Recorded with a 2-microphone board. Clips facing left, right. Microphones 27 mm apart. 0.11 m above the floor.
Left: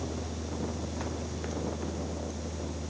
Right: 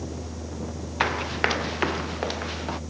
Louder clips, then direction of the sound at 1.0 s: Right 12 dB; 70° right (ahead or behind).